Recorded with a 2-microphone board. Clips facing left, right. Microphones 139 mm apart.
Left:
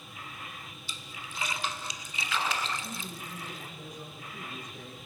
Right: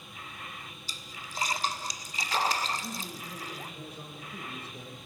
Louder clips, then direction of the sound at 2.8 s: Right 1 dB; 30° right (ahead or behind).